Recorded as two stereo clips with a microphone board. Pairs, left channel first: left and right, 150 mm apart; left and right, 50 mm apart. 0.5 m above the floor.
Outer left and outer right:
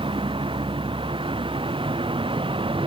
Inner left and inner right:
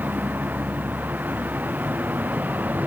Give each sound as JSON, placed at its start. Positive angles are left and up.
{"t": 0.0, "sound": "a vehicle", "side_deg": -35}